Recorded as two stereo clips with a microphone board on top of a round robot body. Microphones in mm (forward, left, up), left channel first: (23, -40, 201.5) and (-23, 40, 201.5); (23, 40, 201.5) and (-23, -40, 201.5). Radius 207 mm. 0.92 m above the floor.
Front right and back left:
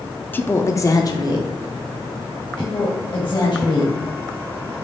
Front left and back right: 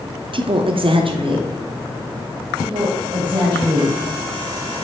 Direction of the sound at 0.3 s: 130° right.